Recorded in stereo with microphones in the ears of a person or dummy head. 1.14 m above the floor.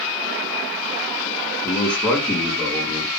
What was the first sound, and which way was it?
A man speaking, 10° left (ahead or behind).